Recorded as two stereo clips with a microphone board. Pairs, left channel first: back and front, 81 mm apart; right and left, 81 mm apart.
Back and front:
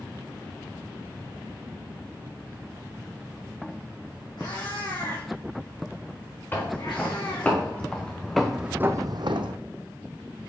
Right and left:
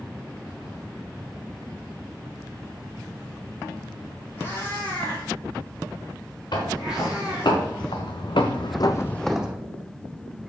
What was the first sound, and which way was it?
A cat meowing, 155° right.